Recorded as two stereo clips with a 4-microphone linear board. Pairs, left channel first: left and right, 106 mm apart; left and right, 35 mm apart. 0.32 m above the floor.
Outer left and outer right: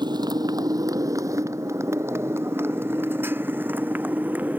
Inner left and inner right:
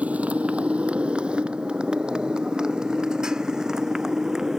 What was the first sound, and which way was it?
A motorcycle, 45° right (ahead or behind).